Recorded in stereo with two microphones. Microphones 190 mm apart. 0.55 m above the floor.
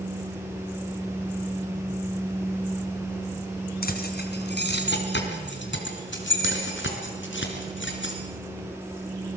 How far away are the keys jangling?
About 3 m.